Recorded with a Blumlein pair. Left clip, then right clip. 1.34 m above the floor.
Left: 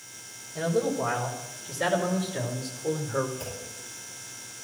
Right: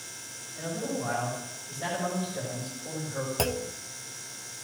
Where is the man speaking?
55° left, 5.5 m; by 3.3 s 35° left, 4.5 m.